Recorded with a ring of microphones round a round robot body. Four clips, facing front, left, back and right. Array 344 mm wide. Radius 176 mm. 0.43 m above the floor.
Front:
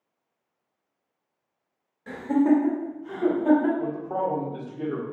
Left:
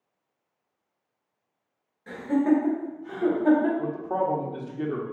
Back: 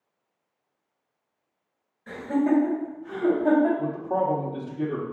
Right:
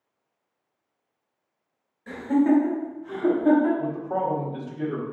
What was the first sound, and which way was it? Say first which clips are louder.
Laughter: right 2 dB, front 2 dB; 5° left.